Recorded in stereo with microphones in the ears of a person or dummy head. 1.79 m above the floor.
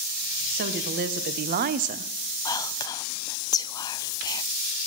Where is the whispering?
20° left (ahead or behind), 0.5 m.